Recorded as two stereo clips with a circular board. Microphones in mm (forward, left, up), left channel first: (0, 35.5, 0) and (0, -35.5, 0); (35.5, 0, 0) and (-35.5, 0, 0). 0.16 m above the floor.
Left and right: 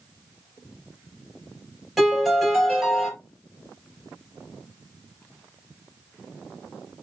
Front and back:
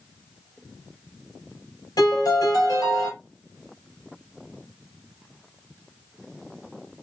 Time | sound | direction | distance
2.0 | a piano | 5° right | 3.5 m